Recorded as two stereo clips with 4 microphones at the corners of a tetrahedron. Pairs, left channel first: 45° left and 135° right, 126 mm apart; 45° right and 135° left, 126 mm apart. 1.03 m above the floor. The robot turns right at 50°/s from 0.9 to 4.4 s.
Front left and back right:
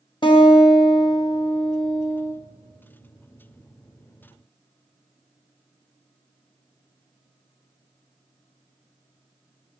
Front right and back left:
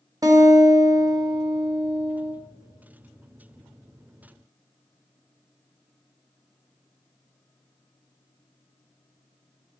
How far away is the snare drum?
I don't hear a snare drum.